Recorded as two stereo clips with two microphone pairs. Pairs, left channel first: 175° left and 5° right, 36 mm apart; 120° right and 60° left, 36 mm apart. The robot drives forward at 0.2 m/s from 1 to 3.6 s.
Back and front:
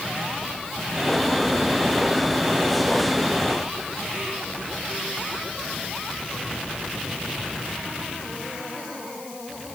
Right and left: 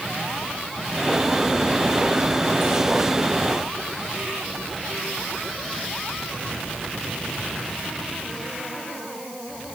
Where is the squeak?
I don't hear a squeak.